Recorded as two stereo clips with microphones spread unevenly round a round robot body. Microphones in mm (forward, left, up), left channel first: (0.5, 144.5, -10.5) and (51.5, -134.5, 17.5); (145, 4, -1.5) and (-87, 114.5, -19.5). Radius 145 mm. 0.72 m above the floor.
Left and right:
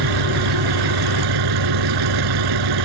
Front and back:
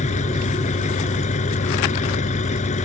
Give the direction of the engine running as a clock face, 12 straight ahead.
3 o'clock.